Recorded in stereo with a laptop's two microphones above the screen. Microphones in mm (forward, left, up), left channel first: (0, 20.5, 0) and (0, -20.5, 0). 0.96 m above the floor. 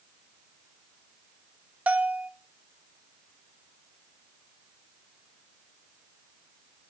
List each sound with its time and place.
1.9 s a bell: 35° right (ahead or behind), 0.6 m